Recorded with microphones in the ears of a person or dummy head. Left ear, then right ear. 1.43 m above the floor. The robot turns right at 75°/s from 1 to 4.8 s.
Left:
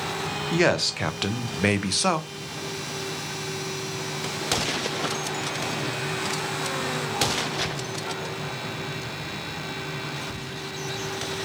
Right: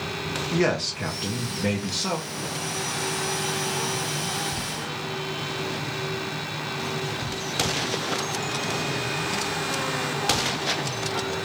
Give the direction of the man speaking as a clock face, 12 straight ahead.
11 o'clock.